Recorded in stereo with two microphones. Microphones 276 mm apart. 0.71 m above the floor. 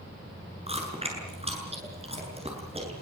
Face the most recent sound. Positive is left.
turn(degrees=-20)  # may be behind; listen again after turning